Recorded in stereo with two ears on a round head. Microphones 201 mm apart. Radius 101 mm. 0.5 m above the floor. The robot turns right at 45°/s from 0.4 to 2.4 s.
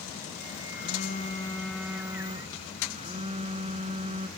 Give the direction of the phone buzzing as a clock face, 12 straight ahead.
8 o'clock.